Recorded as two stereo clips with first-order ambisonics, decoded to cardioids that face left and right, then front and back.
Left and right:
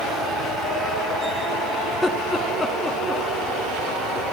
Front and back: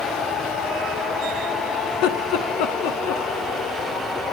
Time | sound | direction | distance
1.9 | laughter | 10° left | 2.5 m